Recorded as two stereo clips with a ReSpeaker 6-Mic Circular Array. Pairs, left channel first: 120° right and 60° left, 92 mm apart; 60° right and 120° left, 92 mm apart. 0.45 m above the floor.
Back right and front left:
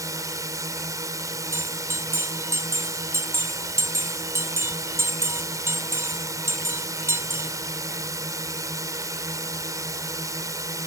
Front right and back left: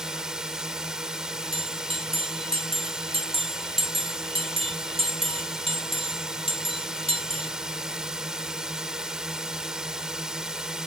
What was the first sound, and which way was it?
A drone, 40° left.